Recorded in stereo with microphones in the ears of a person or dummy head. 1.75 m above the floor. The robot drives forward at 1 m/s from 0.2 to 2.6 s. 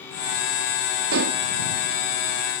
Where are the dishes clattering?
50° right (ahead or behind); by 1.4 s 45° right (ahead or behind).